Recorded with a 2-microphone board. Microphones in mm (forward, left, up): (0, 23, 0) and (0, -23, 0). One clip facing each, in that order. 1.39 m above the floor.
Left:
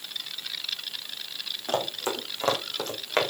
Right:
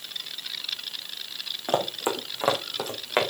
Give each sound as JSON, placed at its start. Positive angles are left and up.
{"t": 1.7, "sound": "running footsteps", "side_deg": -20, "distance_m": 4.5}